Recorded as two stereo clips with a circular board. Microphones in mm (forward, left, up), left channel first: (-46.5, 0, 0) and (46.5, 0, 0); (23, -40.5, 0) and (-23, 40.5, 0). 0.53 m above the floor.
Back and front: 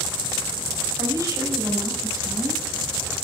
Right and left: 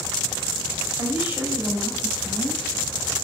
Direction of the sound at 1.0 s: 50° left.